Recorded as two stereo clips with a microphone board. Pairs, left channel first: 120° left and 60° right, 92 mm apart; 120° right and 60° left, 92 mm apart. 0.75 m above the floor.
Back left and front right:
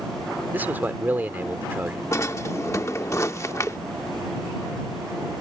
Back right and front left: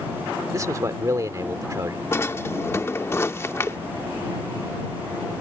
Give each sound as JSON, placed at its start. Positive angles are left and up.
{"t": 0.5, "sound": "a man speaking", "azimuth_deg": 10}
{"t": 2.1, "sound": "a drawer", "azimuth_deg": 180}